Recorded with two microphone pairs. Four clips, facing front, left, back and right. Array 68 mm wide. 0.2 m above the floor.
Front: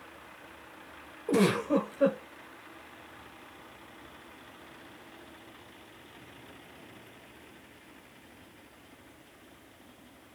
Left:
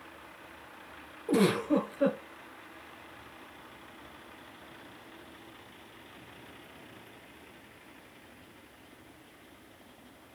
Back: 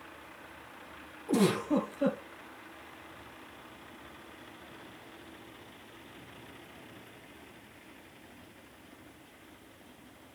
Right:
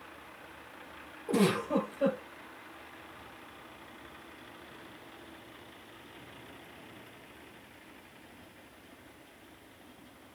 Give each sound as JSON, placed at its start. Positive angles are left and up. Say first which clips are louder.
{"t": 1.3, "sound": "a giggle", "louder": "left 2 dB, front 2 dB", "azimuth_deg": 25, "distance_m": 2.5}